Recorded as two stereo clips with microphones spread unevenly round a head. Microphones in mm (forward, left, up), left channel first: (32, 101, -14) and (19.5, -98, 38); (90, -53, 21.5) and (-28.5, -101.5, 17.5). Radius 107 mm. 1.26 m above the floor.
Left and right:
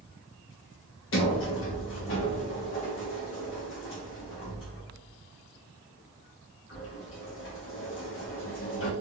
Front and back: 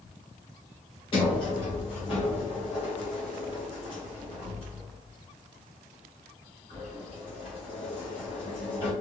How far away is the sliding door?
About 0.8 m.